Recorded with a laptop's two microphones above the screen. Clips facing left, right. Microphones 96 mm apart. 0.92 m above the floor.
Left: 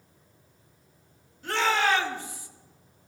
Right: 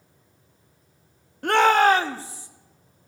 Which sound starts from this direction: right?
A shout, at 1.4 s.